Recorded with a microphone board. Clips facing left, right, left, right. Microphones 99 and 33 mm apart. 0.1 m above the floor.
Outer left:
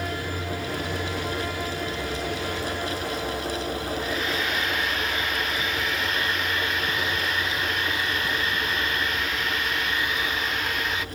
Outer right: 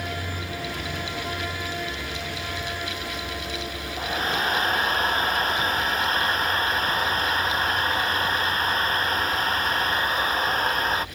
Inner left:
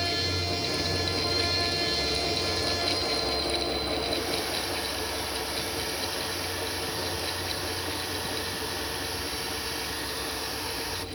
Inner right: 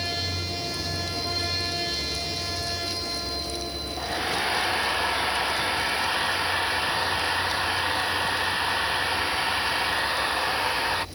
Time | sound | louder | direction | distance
4.0 | a hair dryer | outer right 1 dB, inner right 2 dB | 40° right (ahead or behind) | ?